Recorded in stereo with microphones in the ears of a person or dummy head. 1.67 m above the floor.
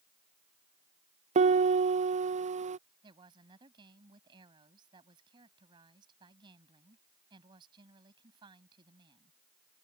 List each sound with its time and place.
1.4 s a piano: 40° right (ahead or behind)
3.0 s a woman speaking: 25° right (ahead or behind)